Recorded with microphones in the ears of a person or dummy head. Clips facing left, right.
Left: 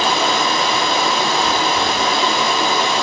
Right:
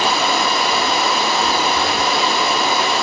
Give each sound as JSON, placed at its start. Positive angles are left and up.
{"t": 0.0, "sound": "running water", "side_deg": -5, "distance_m": 1.4}